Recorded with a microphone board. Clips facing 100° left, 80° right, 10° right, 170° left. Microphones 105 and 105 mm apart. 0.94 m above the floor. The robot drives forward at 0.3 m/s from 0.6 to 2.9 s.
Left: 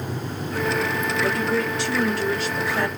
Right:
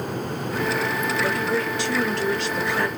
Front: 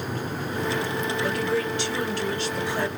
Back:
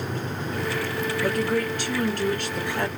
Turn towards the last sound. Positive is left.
turn(degrees=-175)